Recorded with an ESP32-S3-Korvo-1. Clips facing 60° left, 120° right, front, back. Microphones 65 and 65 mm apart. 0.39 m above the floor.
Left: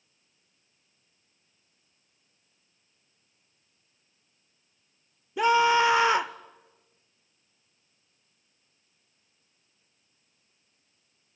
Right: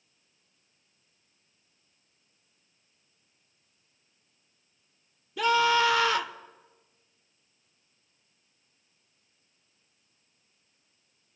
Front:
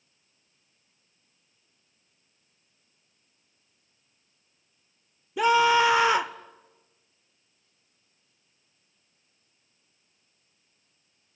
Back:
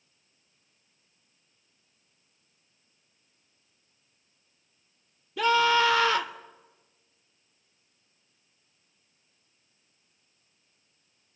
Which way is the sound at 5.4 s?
40° left.